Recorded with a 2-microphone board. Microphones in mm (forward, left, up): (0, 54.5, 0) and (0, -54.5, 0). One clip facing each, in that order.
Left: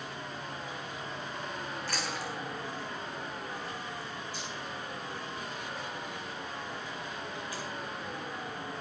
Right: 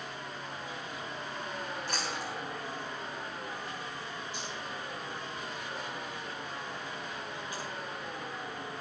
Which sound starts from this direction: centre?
Chewing, at 1.9 s.